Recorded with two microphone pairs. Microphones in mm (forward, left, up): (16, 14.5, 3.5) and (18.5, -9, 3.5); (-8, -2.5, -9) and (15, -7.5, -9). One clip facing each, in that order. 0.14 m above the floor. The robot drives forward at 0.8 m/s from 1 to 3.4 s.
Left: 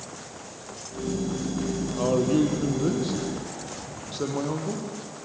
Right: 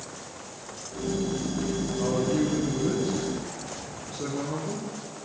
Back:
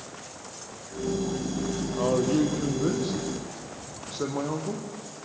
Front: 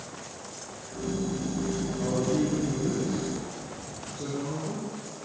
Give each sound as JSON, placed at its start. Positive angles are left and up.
{"t": 2.0, "sound": "a man speaking", "azimuth_deg": 145, "distance_m": 4.0}